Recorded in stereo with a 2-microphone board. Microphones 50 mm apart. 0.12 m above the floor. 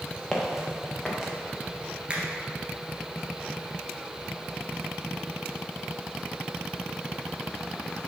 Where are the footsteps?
Centre (ahead or behind), 2.0 m; by 1.3 s 10° right (ahead or behind), 2.5 m.